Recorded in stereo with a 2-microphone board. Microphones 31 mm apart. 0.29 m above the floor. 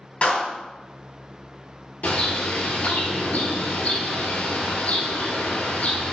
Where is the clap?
50° left (ahead or behind), 1.9 m.